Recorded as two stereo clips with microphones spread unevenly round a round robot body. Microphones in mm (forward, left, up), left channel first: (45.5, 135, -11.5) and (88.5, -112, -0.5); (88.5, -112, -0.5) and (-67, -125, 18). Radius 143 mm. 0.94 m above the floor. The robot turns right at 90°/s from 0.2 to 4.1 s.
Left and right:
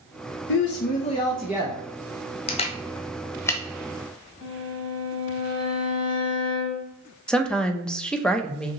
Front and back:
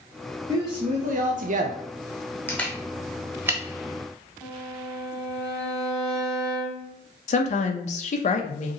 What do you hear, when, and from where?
0.5 s a woman speaking: 105° left, 0.5 m; by 1.8 s 140° right, 0.5 m
2.5 s a camera shutter: 80° left, 0.6 m; by 3.6 s straight behind, 0.6 m
4.4 s a violin: 170° left, 2 m
7.3 s a woman speaking: 15° left, 0.6 m